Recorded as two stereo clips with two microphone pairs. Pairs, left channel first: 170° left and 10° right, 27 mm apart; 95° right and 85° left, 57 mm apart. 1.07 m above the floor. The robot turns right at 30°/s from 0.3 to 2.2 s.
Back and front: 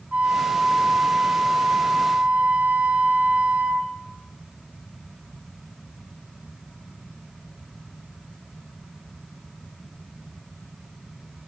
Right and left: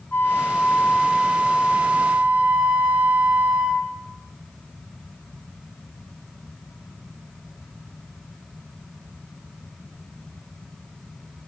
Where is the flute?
40° right, 6.5 m; by 3.9 s 15° left, 6.5 m.